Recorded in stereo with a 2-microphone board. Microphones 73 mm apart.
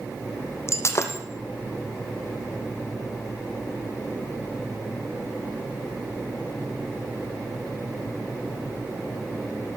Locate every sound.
0.7 s breaking glass: 40° left (ahead or behind), 3 m